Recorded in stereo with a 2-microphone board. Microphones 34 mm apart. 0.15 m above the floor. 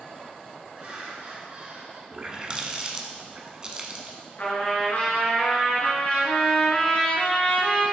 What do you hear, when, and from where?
0.7 s laughter: 35° right (ahead or behind), 2 m; by 2.0 s 40° right (ahead or behind), 1.7 m
2.1 s a running tap: 25° right (ahead or behind), 0.7 m
4.4 s a trumpet: 50° left (ahead or behind), 2 m